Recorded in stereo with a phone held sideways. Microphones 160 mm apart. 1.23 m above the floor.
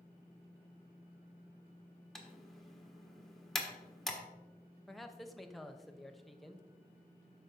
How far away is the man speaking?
About 0.7 m.